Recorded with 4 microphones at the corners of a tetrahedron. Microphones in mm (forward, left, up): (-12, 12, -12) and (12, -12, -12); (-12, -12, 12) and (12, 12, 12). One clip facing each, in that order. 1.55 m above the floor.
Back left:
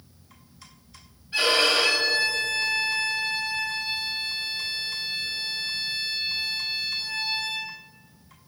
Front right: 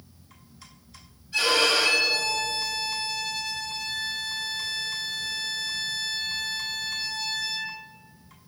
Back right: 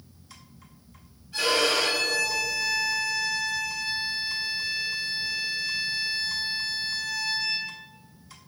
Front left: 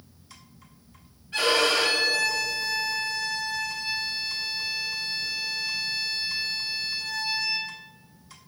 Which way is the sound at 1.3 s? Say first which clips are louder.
Back left 1 dB, front left 1 dB; 75° left.